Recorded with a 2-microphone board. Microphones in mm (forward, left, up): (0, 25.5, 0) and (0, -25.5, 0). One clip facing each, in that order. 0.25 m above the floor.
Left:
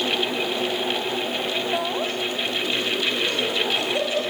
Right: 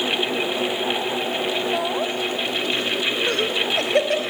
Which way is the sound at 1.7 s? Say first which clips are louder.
Right 2 dB; centre (ahead or behind).